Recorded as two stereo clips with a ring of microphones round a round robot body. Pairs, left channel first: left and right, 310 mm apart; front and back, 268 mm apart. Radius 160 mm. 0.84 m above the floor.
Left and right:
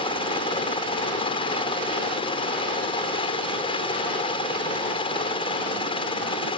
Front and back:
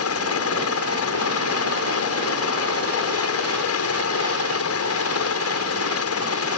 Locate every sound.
0.0 s a helicopter: 20° left